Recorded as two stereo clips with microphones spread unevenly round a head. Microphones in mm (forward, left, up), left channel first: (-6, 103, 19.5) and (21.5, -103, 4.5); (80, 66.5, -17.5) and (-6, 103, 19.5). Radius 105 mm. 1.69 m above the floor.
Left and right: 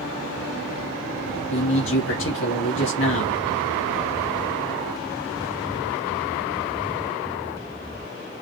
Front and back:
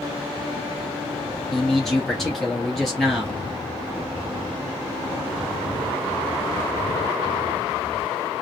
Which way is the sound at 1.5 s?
70° left.